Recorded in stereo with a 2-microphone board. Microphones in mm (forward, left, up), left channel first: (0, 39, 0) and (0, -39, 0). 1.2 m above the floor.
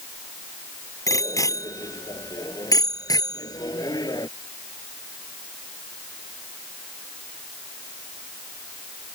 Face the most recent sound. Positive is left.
turn(degrees=55)  # may be behind; listen again after turning